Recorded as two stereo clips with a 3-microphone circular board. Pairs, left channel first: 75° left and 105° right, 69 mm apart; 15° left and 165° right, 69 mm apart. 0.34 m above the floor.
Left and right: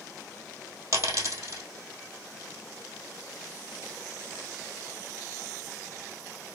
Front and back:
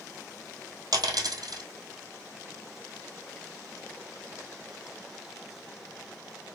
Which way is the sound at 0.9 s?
145° right.